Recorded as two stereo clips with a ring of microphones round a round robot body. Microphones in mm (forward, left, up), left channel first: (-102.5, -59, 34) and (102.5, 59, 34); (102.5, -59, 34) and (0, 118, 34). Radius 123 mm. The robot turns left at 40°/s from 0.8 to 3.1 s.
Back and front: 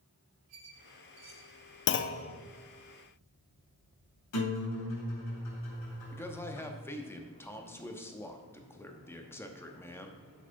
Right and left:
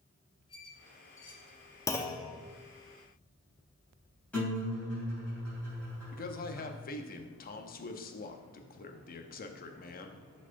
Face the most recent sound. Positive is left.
turn(degrees=-75)